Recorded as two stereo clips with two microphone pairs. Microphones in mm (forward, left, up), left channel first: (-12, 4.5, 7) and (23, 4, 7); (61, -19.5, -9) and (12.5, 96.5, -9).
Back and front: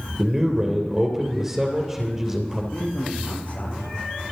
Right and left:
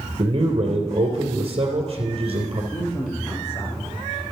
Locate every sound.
0.2 s a man speaking: 70° left, 3 m
2.7 s a man speaking: 140° right, 4.5 m